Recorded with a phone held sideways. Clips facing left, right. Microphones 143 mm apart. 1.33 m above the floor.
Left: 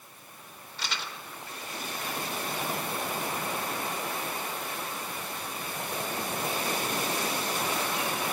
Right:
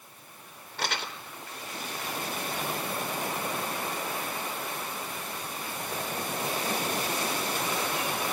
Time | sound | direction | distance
0.8 | crumpling | 60° right (ahead or behind) | 3 m